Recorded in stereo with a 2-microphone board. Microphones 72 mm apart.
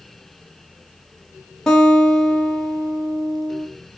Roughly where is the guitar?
Centre.